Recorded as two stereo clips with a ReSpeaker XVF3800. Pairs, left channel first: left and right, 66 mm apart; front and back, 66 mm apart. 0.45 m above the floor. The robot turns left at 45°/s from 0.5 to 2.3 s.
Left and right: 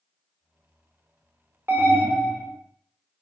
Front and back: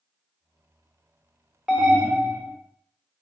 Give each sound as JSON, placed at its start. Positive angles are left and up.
{"t": 1.7, "sound": "an alarm", "azimuth_deg": -105, "distance_m": 0.9}